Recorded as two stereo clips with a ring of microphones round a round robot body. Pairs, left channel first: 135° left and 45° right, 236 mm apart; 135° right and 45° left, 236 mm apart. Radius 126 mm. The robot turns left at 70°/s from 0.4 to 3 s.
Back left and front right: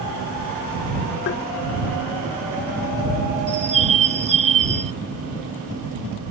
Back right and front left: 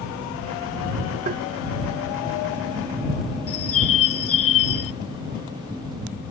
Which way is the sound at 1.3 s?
100° left.